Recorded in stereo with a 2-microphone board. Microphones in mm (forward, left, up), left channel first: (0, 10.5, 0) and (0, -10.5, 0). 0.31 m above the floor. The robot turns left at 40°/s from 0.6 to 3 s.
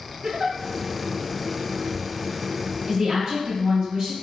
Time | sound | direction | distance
0.2 | a giggle | 35° right (ahead or behind) | 0.8 m
2.9 | a woman speaking | 40° right (ahead or behind) | 1.8 m